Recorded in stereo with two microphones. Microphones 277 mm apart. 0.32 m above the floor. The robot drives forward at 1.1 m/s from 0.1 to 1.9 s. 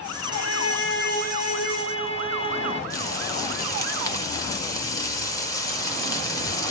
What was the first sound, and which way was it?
A violin, 70° left (ahead or behind).